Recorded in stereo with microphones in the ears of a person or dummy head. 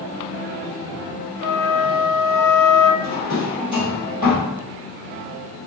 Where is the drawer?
30° left (ahead or behind), 1.6 m.